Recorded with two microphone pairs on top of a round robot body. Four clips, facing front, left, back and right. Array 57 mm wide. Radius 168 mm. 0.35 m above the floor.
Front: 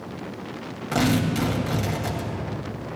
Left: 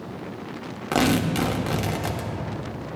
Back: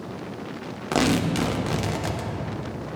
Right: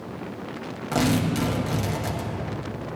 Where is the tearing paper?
115° left, 1.4 m.